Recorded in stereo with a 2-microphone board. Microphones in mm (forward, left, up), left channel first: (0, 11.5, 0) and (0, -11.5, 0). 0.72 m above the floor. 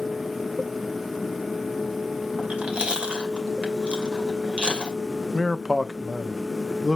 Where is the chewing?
55° right (ahead or behind), 2.5 m.